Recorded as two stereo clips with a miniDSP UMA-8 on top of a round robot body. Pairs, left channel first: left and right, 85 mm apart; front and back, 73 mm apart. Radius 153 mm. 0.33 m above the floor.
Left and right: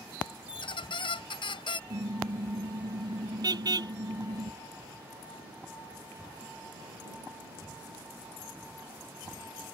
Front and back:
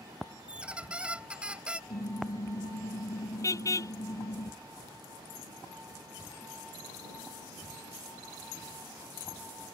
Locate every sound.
0.5 s a squeak: 105° left
1.9 s a car horn: 45° right